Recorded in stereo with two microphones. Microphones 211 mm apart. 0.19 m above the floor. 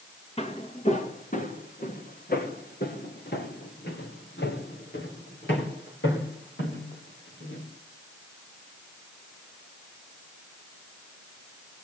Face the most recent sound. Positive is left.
turn(degrees=65)  # may be behind; listen again after turning